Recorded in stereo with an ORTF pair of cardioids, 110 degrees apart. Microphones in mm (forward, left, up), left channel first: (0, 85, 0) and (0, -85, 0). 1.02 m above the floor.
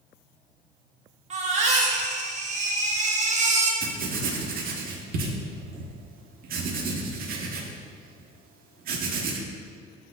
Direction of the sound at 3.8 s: 60° right.